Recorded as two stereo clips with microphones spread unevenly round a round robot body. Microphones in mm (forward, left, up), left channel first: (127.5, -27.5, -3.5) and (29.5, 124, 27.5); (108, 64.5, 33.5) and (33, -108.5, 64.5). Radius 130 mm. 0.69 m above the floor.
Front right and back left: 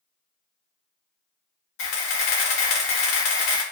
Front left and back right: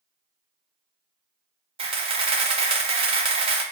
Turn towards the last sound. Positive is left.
turn(degrees=-60)